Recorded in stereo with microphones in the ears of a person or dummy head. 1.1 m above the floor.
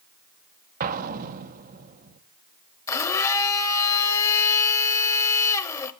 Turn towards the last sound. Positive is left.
turn(degrees=10)  # may be behind; listen again after turning